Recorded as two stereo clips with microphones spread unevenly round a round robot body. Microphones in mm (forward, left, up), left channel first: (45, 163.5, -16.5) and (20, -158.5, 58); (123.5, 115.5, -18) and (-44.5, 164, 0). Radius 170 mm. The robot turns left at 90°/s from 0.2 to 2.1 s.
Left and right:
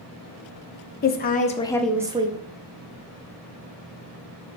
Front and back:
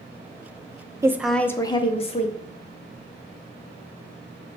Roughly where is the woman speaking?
Left.